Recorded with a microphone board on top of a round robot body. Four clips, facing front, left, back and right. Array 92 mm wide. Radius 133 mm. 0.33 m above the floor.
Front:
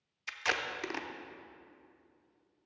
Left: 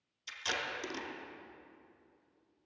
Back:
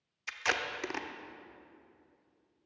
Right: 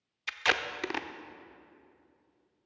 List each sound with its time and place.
0.3 s tape being pulled: 95° right, 0.8 m